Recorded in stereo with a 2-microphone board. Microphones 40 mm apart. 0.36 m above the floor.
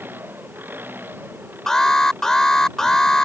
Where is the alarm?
15° left (ahead or behind).